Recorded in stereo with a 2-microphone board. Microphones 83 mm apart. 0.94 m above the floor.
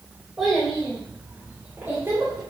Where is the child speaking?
5° right (ahead or behind), 3.5 m; by 2.4 s 40° right (ahead or behind), 2 m.